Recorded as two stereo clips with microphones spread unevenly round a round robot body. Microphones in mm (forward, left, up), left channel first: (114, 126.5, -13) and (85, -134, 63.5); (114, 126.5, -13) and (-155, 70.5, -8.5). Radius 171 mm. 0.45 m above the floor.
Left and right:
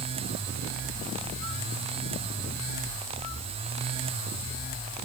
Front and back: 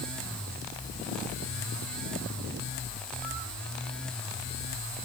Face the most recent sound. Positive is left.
No sound to turn to.